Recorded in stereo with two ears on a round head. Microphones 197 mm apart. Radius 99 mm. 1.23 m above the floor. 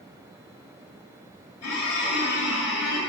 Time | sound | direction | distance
1.6 | a squeak | 75° left (ahead or behind) | 2.5 m